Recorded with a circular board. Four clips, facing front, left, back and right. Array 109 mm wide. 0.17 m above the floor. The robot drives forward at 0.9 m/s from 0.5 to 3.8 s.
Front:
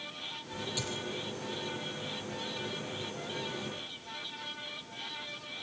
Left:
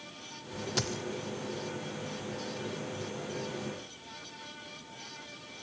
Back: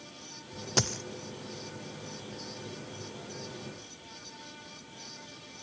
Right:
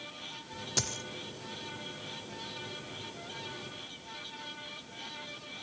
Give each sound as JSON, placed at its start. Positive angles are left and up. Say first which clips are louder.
{"t": 0.8, "sound": "a dropped coin", "louder": "left 4 dB, back 10 dB", "azimuth_deg": 170, "distance_m": 0.8}